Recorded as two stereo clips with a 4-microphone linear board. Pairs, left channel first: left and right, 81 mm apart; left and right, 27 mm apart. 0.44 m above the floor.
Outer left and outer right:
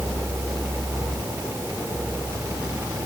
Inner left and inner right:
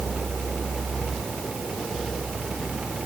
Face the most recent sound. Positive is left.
No sound to turn to.